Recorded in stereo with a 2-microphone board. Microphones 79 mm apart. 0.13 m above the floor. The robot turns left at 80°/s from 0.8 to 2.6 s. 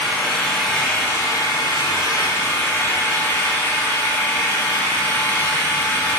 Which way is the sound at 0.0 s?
175° left.